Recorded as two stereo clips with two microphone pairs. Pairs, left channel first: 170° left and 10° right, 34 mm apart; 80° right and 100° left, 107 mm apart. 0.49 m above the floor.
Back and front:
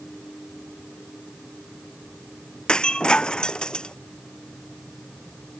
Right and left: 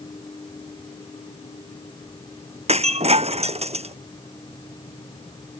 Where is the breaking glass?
110° left.